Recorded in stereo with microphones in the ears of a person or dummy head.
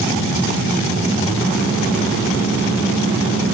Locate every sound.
Only background noise.